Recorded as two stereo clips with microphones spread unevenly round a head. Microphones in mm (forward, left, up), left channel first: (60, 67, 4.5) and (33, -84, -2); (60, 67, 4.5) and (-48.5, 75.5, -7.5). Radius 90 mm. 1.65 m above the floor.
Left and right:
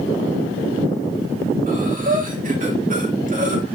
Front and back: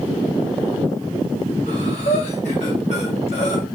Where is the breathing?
65° right, 2.5 m.